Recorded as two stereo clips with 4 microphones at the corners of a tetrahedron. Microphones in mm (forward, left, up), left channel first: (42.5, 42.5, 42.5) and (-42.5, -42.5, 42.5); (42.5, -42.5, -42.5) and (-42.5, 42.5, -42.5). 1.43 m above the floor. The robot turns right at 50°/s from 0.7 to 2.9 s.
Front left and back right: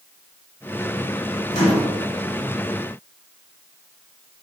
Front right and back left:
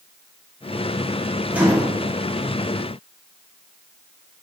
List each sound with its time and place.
1.5 s a microwave: 55° left, 2.5 m; by 1.9 s 80° left, 2.5 m